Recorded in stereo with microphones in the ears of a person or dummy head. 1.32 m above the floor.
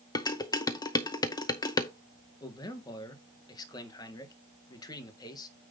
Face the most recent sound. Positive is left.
turn(degrees=20)  # may be behind; listen again after turning